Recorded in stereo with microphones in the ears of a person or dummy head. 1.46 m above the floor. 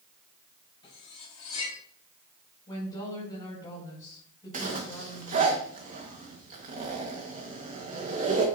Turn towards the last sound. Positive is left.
turn(degrees=-45)  # may be behind; listen again after turning